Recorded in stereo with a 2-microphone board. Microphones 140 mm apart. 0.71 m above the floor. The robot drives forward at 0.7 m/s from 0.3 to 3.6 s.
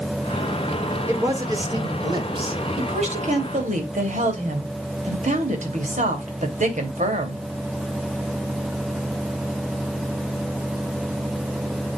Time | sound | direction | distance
1.1 | a man speaking | 25° right (ahead or behind) | 2 m
2.8 | a woman speaking | 55° right (ahead or behind) | 3 m